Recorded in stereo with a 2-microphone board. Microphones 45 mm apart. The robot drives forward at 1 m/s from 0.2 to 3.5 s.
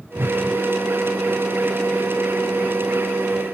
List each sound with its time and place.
0.2 s a whoosh: 50° right (ahead or behind), 0.6 m; by 0.4 s 60° right (ahead or behind), 0.5 m